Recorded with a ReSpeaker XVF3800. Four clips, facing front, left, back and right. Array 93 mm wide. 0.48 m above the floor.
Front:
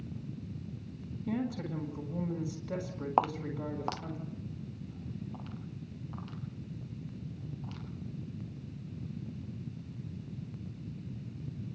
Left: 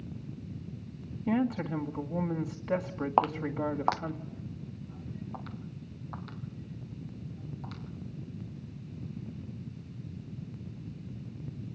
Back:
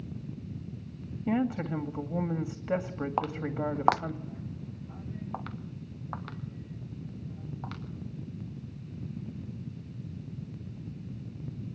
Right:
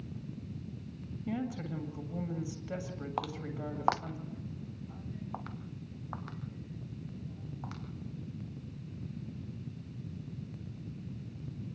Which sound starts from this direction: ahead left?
Footsteps, at 3.2 s.